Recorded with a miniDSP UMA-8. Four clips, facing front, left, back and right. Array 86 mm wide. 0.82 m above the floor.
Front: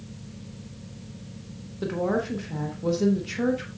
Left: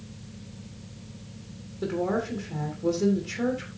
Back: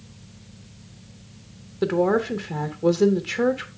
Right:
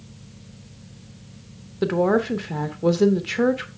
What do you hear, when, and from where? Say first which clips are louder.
1.8 s a woman speaking: right 8 dB, back 6 dB; 115° right, 1.2 m